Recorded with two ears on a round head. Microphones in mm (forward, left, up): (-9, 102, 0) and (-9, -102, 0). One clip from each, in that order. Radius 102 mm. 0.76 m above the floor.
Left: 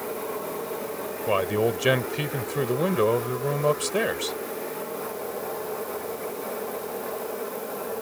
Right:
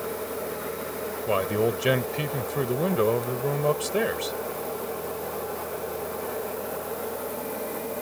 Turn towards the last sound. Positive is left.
turn(degrees=10)  # may be behind; listen again after turning